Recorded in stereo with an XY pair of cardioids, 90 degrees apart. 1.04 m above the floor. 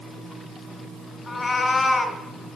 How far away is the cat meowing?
About 3.5 m.